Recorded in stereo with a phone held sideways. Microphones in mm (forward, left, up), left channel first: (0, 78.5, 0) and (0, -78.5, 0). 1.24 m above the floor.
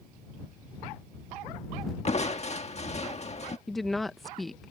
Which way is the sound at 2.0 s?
45° left (ahead or behind).